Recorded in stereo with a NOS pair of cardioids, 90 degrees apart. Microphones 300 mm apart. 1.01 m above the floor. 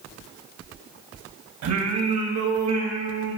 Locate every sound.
1.6 s singing: 65° right, 3.5 m